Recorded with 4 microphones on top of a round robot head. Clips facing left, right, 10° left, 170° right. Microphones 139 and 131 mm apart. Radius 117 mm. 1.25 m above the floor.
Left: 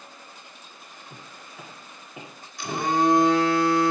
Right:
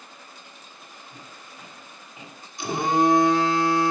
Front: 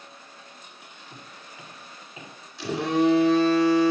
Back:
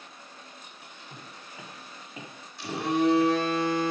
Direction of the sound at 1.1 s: 125° left.